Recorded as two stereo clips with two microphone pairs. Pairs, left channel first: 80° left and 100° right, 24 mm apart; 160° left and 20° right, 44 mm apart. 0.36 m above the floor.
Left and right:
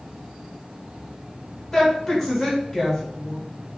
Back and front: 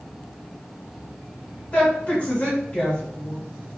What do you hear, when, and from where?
1.7 s a woman speaking: 160° left, 1.4 m